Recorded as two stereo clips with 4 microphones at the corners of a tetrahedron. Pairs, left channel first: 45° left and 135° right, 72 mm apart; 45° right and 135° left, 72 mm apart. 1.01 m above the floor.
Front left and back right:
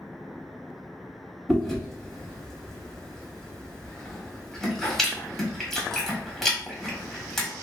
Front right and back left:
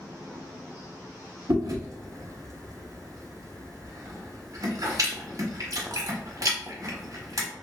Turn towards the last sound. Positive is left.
turn(degrees=130)